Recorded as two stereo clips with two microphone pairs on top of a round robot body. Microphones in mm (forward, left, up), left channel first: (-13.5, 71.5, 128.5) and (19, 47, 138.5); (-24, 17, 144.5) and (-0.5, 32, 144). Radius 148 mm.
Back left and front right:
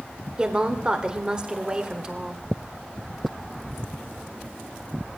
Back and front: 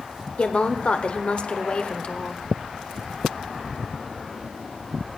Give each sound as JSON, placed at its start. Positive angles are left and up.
{"t": 0.4, "sound": "a woman speaking", "azimuth_deg": -115, "distance_m": 1.7}